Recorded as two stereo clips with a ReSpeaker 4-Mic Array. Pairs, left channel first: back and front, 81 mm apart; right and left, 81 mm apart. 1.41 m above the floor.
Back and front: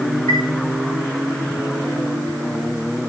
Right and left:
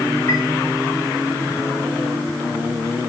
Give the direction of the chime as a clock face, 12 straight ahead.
5 o'clock.